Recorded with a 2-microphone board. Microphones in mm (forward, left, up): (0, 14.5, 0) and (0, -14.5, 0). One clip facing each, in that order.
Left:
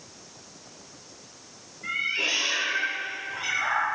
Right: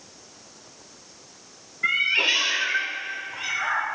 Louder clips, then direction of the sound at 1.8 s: Right 6 dB; 65° right (ahead or behind).